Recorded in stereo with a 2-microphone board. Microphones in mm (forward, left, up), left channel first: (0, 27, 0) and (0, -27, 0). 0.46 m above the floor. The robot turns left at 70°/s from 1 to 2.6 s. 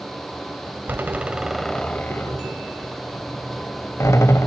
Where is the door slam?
35° right (ahead or behind), 1.6 m; by 4.5 s 65° left (ahead or behind), 1.6 m.